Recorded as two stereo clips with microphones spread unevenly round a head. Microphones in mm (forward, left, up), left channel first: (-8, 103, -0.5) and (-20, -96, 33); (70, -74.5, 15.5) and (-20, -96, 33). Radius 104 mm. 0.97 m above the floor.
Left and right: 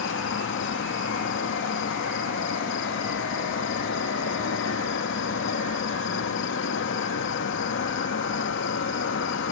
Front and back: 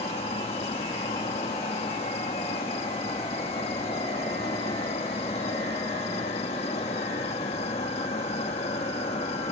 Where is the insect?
50° left.